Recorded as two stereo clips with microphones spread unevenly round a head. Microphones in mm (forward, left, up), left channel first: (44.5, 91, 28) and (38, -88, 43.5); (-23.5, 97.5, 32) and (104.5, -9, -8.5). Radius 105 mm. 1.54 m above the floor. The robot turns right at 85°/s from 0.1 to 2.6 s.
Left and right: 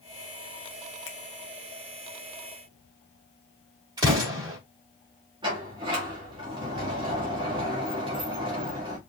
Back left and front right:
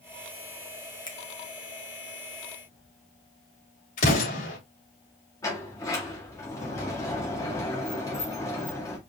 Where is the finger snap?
75° left, 1.7 m; by 1.2 s 85° left, 1.7 m.